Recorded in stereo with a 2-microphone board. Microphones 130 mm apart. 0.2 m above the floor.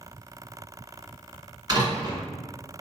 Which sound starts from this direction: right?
A door slam, at 1.7 s.